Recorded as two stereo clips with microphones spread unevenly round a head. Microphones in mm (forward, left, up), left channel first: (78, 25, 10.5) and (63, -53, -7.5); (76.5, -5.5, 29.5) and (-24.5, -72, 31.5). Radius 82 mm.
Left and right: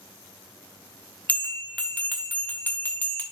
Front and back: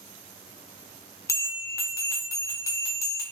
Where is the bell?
90° left, 0.9 m.